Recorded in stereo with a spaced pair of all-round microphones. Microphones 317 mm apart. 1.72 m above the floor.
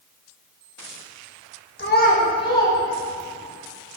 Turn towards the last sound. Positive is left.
turn(degrees=0)  # may be behind; listen again after turning